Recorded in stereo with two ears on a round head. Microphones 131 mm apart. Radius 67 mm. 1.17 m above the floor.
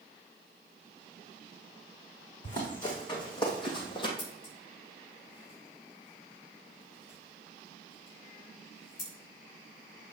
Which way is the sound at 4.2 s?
65° left (ahead or behind).